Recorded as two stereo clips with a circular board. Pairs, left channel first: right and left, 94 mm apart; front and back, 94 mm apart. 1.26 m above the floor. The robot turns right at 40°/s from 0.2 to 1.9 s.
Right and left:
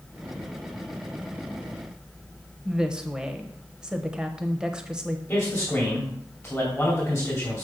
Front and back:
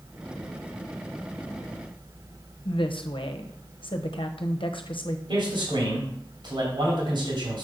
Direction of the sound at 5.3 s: 165° right.